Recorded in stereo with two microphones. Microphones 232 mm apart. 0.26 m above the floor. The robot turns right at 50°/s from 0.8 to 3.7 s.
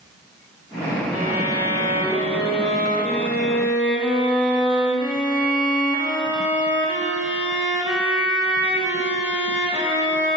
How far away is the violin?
About 1.3 m.